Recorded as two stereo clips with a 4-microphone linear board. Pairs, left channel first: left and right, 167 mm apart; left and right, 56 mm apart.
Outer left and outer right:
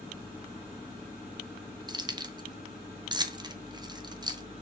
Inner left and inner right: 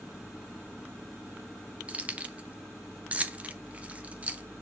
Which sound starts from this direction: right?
Keys jangling, at 1.9 s.